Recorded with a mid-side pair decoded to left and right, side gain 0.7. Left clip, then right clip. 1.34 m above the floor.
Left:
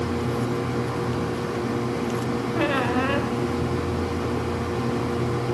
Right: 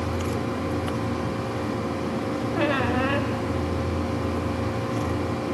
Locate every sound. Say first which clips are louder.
0.0 s a machine running: left 2 dB; 40° left, 4.5 m
2.5 s a squeak: left 1 dB; 5° left, 0.8 m